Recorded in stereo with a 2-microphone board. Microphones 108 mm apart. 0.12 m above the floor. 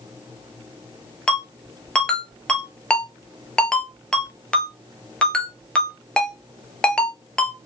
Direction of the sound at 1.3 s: 10° left (ahead or behind).